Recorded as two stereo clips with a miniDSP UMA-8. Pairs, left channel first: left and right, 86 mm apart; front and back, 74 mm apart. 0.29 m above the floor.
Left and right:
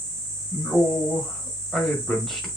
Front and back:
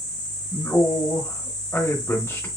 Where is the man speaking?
5° left, 1.5 m.